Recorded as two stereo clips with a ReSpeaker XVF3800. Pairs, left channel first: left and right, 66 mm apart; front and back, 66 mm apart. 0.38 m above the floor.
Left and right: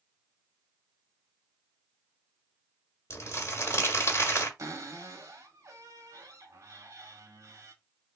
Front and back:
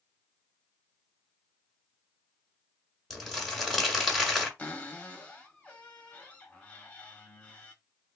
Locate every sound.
3.1 s crumpling: 90° left, 1.7 m
4.6 s a cupboard door: 65° right, 1.2 m